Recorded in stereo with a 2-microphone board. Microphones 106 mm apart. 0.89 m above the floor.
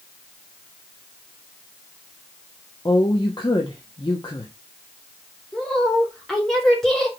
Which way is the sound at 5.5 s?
5° left (ahead or behind).